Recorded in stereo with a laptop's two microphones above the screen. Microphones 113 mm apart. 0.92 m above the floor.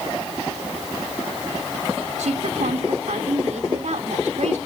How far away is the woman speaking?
About 2.5 m.